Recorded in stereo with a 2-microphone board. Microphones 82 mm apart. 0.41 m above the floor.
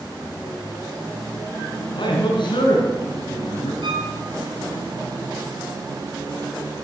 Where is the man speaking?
70° left (ahead or behind), 5 m; by 3.7 s 80° left, 6.5 m.